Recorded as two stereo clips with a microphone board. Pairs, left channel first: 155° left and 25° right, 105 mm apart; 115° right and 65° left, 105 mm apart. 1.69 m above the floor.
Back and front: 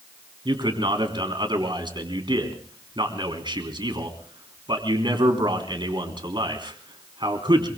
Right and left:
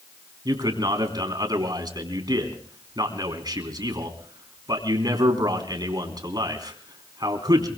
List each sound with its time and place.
0.5 s a man speaking: 20° left, 3.5 m